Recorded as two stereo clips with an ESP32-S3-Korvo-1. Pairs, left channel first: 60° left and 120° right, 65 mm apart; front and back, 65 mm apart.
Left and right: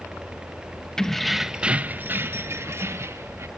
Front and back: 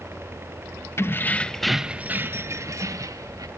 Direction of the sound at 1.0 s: 15° right.